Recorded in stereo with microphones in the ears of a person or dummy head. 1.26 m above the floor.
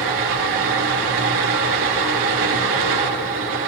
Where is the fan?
75° right (ahead or behind), 1.7 m.